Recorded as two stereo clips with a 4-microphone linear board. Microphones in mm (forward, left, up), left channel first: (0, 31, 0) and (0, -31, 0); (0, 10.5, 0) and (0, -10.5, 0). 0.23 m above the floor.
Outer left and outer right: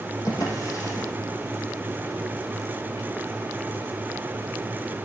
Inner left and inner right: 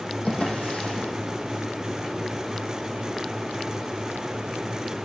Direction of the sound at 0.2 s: 65° left (ahead or behind).